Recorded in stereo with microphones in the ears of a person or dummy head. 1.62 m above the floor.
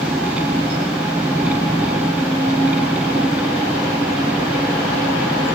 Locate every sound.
0.0 s an engine running: 10° right (ahead or behind)